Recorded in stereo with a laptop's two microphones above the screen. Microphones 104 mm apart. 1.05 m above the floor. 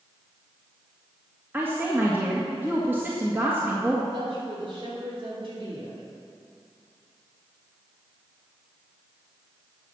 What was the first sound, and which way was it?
A woman speaking, 20° right (ahead or behind).